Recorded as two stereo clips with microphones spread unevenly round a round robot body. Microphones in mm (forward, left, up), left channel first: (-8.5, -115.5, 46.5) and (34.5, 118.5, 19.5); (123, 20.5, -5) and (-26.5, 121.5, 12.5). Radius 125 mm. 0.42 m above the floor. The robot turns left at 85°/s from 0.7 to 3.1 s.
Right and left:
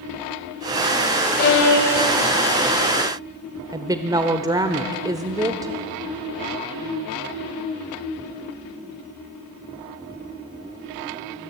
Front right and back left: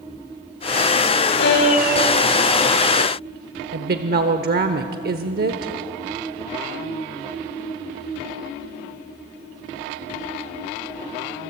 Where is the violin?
50° right, 3 m; by 2.2 s 125° right, 3 m.